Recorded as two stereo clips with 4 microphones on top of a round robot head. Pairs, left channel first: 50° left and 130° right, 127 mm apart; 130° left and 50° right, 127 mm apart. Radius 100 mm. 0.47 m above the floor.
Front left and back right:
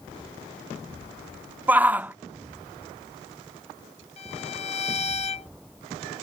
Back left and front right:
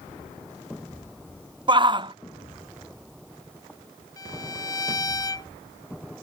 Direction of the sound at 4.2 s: 70° left.